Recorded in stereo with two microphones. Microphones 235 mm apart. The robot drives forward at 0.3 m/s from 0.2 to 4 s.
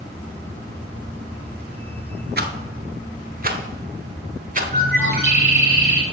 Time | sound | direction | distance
2.4 | a rattle | 45° right (ahead or behind) | 0.8 m
4.7 | a bird | 40° right (ahead or behind) | 3 m